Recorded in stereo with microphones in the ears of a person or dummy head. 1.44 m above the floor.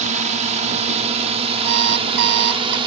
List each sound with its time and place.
0.0 s a drone: 40° right (ahead or behind); by 2.9 s 25° right (ahead or behind)
1.6 s an alarm clock: 60° right (ahead or behind)